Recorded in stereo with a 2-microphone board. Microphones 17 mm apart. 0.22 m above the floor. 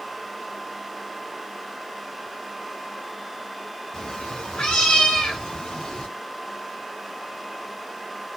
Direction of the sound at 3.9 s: 60° left (ahead or behind).